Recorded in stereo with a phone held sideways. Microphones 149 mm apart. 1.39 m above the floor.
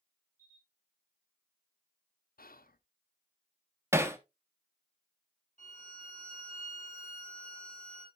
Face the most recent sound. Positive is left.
turn(degrees=55)  # may be behind; listen again after turning